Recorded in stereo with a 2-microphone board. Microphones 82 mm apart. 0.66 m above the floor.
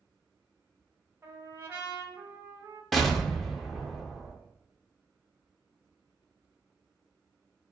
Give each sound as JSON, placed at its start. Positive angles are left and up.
{"t": 1.2, "sound": "a trumpet", "side_deg": -25, "distance_m": 0.8}
{"t": 2.9, "sound": "an explosion", "side_deg": 0, "distance_m": 0.5}